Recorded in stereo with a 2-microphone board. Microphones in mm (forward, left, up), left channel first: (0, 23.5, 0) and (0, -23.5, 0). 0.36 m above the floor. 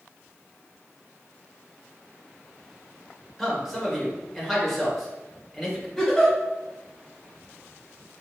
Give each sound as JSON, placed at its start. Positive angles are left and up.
{"t": 3.4, "sound": "a man speaking", "side_deg": 0, "distance_m": 0.9}
{"t": 6.0, "sound": "a giggle", "side_deg": -5, "distance_m": 1.4}